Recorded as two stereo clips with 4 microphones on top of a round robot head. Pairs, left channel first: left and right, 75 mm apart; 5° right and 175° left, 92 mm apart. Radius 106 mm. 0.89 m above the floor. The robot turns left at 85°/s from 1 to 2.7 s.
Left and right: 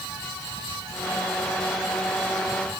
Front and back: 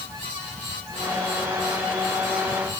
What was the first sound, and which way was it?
Only background noise.